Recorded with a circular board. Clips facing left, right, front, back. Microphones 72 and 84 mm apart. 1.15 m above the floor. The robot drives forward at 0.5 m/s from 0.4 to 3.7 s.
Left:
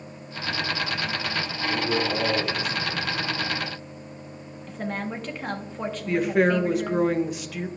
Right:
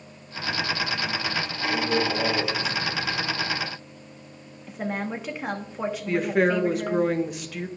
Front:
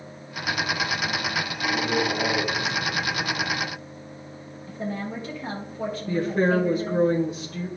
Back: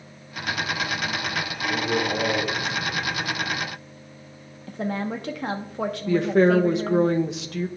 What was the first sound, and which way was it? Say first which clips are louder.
A man speaking: right 1 dB, even; 160° left.